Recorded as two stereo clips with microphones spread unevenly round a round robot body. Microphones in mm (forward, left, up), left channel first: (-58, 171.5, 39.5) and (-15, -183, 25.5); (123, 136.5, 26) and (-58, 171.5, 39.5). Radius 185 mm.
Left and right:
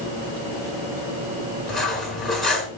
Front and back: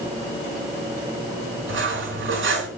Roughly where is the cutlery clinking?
Behind.